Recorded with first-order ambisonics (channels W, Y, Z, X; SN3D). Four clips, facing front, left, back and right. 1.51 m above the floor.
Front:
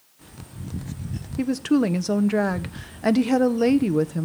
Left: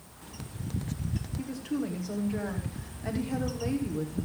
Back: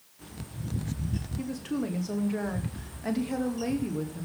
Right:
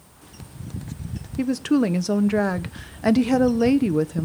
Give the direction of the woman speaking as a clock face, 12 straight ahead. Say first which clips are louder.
Right 14 dB, front 13 dB; 2 o'clock.